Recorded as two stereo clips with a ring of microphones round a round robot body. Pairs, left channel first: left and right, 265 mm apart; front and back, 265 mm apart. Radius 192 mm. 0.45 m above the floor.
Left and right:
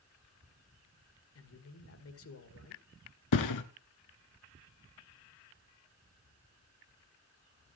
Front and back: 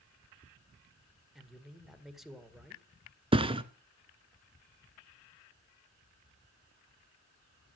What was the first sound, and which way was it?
A man speaking, 90° left.